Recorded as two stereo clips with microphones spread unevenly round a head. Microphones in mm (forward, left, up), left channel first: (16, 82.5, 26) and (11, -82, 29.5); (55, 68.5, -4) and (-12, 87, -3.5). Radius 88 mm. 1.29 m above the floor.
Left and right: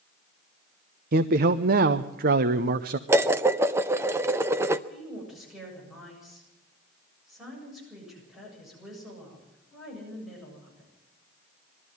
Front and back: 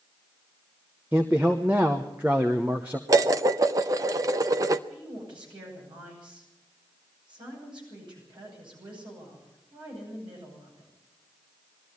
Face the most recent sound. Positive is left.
turn(degrees=180)